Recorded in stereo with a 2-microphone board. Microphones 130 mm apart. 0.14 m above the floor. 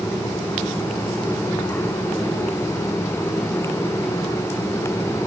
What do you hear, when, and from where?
Only background noise.